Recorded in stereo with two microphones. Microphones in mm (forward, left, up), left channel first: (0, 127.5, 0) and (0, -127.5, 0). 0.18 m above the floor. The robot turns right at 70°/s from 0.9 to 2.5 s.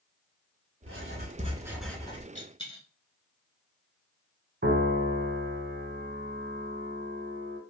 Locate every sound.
0.8 s writing: 65° right, 0.7 m; by 2.2 s 30° left, 0.7 m
2.4 s a dropped coin: 30° left (ahead or behind), 1.1 m; by 2.9 s 20° left (ahead or behind), 1.1 m
4.6 s a piano: 40° right (ahead or behind), 0.8 m